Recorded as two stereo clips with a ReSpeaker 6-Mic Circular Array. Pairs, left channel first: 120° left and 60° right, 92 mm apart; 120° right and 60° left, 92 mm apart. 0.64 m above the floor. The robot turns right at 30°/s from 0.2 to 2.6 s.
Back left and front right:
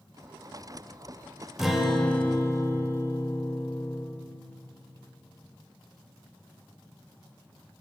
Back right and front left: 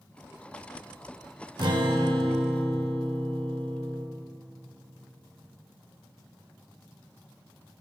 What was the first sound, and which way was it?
A guitar, 25° left.